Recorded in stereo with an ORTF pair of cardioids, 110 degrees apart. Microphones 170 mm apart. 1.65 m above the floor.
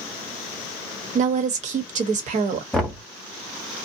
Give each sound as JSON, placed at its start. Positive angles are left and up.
{"t": 1.1, "sound": "a woman speaking", "azimuth_deg": -50, "distance_m": 1.0}
{"t": 2.7, "sound": "knocking", "azimuth_deg": 5, "distance_m": 0.9}